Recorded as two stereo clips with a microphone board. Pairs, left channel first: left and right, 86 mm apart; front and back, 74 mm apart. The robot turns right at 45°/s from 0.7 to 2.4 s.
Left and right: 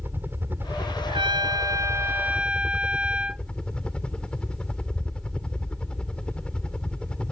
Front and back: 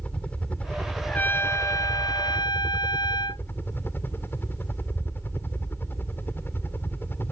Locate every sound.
0.0 s a helicopter: 55° right; by 7.3 s 25° left
1.1 s a trumpet: 70° right; by 3.5 s 10° right